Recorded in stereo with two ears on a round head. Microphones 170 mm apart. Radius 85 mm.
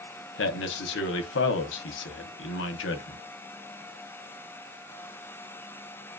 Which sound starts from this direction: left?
A man speaking, at 0.4 s.